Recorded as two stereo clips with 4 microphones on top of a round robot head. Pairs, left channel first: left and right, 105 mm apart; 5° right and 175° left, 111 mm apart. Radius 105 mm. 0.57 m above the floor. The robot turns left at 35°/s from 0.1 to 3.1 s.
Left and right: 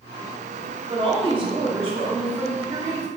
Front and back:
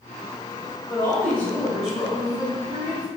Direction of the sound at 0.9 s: 65° right.